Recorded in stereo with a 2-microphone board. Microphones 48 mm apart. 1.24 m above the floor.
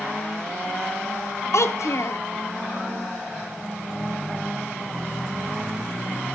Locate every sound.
1.5 s a child speaking: 70° left (ahead or behind), 1.6 m